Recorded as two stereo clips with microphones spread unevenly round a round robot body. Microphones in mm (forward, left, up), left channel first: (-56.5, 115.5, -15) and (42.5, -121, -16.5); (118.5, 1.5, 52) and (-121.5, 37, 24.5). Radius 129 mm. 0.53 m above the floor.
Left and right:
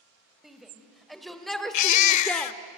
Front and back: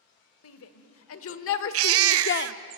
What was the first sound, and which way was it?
A shout, 20° left.